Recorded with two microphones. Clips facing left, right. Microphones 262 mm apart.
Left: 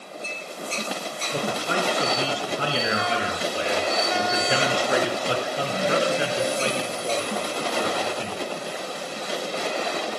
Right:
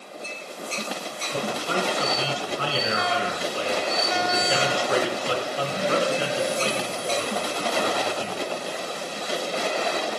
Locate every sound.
1.3 s a man speaking: 20° left (ahead or behind), 2.5 m